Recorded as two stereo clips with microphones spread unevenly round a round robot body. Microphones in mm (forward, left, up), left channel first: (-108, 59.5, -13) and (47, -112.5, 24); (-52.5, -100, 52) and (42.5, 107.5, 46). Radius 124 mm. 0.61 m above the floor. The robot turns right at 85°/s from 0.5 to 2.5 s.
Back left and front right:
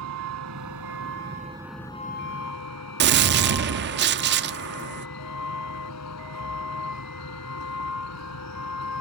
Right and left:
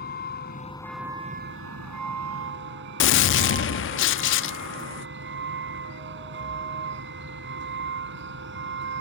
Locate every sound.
0.0 s a vehicle: 65° right; by 9.0 s 105° left
3.0 s a gunshot: 90° right